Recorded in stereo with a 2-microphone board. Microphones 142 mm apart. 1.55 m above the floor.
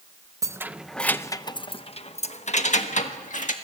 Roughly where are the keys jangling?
Right.